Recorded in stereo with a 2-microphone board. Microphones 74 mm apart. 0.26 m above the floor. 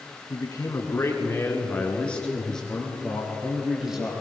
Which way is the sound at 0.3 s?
45° left (ahead or behind).